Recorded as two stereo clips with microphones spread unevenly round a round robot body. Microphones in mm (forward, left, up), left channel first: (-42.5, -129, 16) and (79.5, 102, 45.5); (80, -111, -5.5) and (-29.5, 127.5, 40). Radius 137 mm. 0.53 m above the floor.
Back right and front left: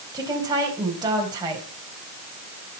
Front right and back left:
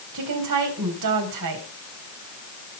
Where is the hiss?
No hiss in this recording.